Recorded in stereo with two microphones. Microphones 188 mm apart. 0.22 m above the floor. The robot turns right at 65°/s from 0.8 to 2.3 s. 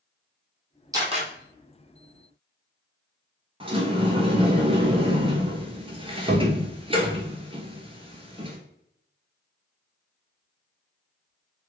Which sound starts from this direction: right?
A sliding door, at 3.6 s.